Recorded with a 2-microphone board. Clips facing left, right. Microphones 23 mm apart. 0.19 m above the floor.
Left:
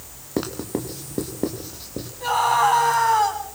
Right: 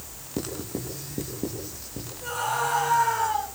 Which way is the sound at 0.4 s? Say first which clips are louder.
Left 6 dB; 45° left (ahead or behind).